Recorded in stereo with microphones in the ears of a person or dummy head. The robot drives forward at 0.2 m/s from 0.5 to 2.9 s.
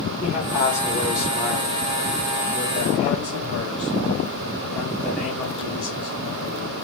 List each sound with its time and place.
0.2 s a man speaking: 5° right (ahead or behind), 1.1 m; by 6.7 s centre (ahead or behind), 1.6 m